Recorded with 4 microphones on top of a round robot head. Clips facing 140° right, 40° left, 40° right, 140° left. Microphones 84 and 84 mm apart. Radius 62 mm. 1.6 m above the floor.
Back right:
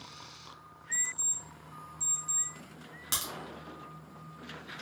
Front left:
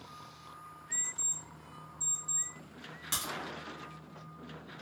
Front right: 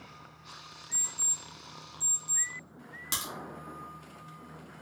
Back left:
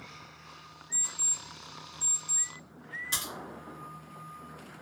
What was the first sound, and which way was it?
An alarm clock, 40° right.